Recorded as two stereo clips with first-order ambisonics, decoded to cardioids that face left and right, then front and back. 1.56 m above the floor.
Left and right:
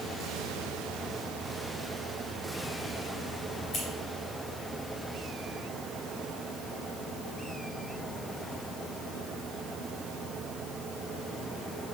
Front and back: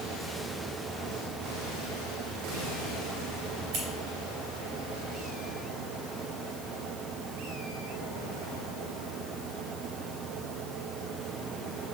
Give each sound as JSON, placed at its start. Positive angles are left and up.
{"t": 3.7, "sound": "scissors", "azimuth_deg": 155, "distance_m": 2.5}